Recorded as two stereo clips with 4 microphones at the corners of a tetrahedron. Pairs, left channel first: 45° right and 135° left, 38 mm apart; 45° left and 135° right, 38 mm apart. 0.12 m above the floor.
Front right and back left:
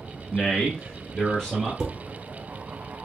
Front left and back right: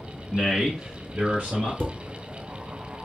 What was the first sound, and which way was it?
A man speaking, 20° right.